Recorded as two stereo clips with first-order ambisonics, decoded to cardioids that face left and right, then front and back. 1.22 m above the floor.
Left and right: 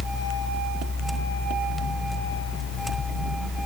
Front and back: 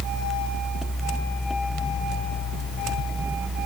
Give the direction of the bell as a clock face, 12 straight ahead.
I don't hear a bell.